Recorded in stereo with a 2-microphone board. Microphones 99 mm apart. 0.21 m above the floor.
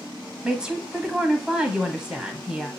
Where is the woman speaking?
10° right (ahead or behind), 1.0 m.